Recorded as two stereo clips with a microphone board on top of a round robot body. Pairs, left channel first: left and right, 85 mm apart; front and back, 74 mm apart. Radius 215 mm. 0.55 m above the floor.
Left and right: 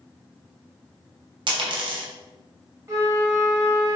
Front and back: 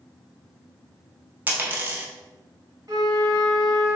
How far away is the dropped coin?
About 0.5 m.